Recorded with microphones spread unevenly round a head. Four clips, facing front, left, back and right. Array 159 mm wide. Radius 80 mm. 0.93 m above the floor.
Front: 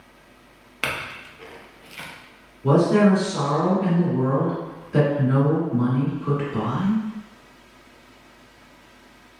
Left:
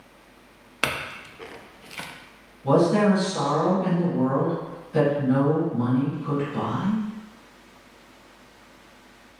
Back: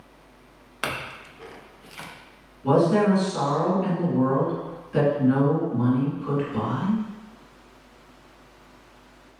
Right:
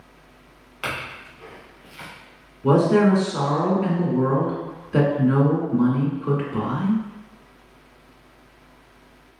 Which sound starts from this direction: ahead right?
A woman speaking, at 2.6 s.